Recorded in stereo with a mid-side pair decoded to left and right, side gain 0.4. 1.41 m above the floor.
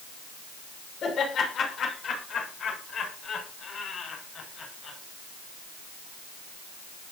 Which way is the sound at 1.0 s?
65° left.